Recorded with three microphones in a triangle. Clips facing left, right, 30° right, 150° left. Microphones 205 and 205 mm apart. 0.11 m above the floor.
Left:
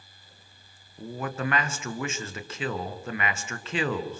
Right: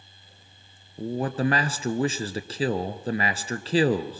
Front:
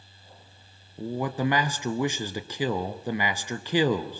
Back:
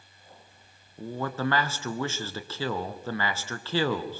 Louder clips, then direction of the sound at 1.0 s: Right 6 dB, front 3 dB; 90° right.